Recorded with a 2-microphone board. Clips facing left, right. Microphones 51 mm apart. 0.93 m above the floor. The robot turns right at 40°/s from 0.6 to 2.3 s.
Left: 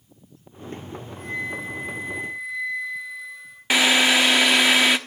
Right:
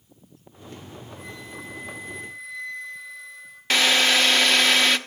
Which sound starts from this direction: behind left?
A flute, at 1.2 s.